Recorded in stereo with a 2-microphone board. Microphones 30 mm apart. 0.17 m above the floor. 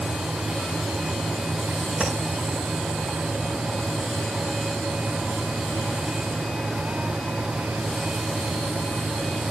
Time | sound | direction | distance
2.0 | tapping | 40° right (ahead or behind) | 9 m